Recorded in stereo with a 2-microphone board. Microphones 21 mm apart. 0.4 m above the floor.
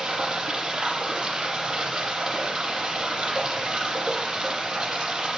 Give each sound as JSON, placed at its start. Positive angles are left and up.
{"t": 0.0, "sound": "running water", "side_deg": -55, "distance_m": 6.5}